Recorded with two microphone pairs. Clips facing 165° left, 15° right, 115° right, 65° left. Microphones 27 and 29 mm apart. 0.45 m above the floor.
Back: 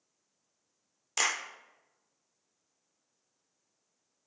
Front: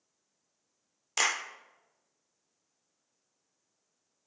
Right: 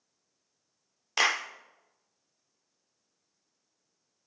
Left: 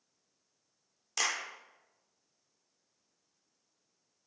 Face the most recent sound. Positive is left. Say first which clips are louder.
# front 1 dB, right 7 dB
turn(degrees=-95)